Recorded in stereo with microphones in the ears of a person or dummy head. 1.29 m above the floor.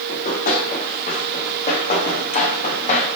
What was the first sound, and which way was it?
Running footsteps, 55° left (ahead or behind).